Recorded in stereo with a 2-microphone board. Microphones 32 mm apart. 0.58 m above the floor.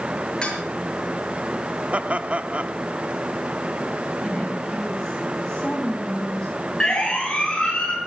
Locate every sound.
0.4 s dishes clattering: 25° left (ahead or behind), 8 m
1.9 s laughter: 40° right (ahead or behind), 1.2 m
4.2 s a woman speaking: 15° left (ahead or behind), 3.5 m
6.8 s a siren: 20° left (ahead or behind), 9 m; by 8.0 s 25° left (ahead or behind), 8.5 m